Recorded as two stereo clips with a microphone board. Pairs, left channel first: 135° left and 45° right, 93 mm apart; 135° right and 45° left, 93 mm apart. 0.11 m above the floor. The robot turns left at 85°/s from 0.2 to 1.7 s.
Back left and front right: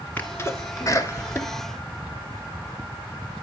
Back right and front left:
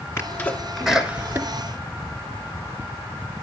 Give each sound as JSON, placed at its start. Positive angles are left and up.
{"t": 0.2, "sound": "a sneeze", "azimuth_deg": -170, "distance_m": 2.0}